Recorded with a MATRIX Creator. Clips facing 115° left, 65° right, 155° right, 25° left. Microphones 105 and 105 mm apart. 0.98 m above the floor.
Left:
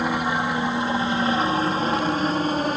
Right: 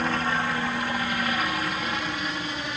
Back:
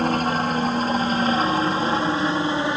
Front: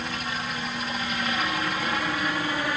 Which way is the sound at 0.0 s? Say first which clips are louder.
Left 3 dB, back 11 dB; 175° right.